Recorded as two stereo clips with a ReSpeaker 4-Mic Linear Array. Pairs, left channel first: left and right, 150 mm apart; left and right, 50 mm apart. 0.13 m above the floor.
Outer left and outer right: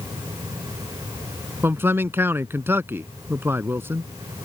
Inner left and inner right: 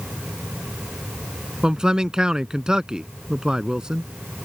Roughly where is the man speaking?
Centre.